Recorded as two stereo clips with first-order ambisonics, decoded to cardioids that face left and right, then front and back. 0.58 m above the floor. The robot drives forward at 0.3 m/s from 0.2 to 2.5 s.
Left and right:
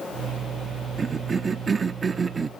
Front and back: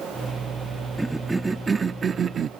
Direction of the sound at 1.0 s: 100° right.